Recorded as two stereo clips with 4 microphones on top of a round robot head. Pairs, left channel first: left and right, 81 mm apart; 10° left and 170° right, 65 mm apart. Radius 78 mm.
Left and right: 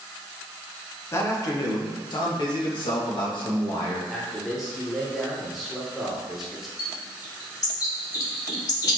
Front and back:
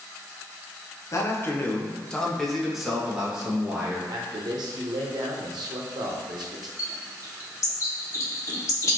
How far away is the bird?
About 1.3 m.